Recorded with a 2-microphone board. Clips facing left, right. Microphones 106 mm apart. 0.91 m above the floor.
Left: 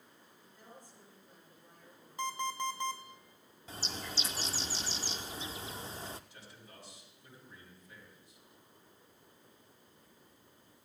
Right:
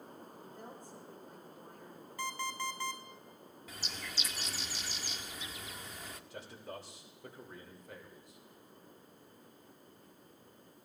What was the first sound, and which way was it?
A woman speaking, 65° right (ahead or behind).